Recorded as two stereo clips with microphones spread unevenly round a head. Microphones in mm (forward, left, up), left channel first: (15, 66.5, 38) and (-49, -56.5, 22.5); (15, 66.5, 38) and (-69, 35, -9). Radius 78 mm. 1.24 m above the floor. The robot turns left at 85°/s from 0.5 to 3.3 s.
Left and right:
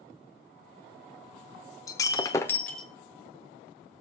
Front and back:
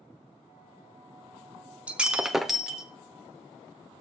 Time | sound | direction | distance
1.9 | breaking glass | 75° left | 0.9 m